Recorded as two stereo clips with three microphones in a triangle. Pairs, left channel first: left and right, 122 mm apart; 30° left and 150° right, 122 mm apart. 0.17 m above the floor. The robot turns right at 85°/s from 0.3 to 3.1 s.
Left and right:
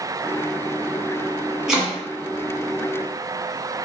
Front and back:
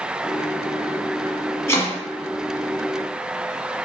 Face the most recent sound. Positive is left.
turn(degrees=110)